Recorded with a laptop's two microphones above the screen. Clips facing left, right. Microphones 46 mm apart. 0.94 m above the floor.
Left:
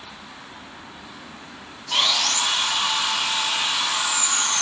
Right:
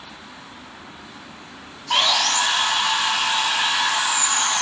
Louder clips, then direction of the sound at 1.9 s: Right 3 dB; 55° right (ahead or behind).